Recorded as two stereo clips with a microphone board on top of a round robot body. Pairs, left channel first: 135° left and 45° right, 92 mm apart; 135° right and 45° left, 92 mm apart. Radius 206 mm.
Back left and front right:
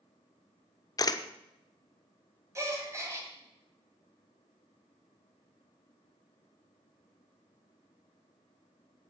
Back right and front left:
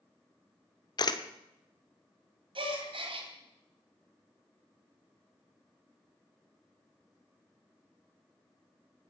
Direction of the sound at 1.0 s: 175° right.